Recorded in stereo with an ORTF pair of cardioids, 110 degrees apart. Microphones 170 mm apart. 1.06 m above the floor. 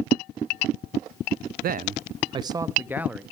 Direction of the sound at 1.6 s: 55° right.